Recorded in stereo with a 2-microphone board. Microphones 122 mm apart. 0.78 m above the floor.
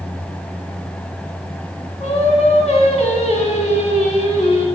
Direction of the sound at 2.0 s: 60° left (ahead or behind).